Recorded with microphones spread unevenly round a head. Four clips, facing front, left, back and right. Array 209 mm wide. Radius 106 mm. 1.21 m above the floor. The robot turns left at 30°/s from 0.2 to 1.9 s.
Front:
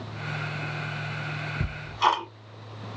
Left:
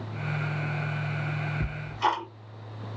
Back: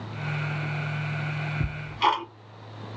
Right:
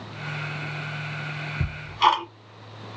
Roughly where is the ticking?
Right.